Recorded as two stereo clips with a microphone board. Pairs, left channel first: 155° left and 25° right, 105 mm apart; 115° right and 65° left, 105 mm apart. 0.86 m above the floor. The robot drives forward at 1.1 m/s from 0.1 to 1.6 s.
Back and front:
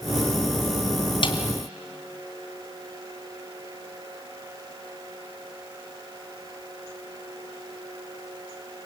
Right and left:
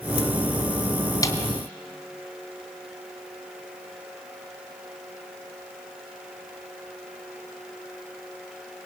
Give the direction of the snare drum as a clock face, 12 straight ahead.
6 o'clock.